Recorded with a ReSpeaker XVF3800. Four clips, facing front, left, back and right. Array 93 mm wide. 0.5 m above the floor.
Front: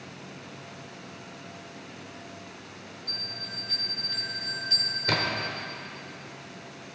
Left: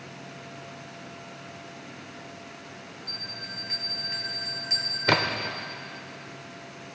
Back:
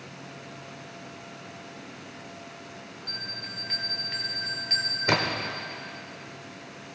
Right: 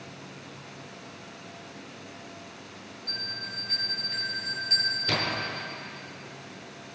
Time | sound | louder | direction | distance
3.1 | a bell | right 4 dB, back 3 dB | 155° left | 2.0 m
5.1 | a splash | left 8 dB, back 2 dB | 110° left | 0.9 m